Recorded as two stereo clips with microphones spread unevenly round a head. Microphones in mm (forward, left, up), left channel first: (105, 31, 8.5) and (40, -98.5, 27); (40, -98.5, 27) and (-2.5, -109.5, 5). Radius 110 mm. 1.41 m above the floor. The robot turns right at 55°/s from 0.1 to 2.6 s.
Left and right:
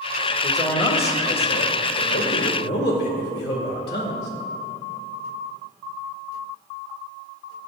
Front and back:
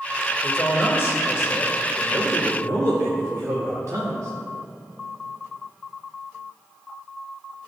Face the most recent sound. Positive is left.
turn(degrees=135)